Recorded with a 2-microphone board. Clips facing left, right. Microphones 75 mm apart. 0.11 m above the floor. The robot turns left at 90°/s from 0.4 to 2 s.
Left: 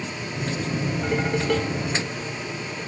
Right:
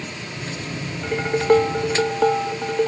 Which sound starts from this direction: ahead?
Dishes clattering, at 1.0 s.